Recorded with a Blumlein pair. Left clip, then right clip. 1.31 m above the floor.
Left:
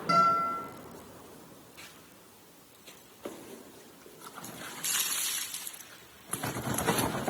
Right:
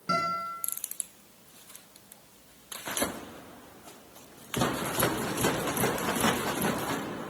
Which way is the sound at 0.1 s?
5° left.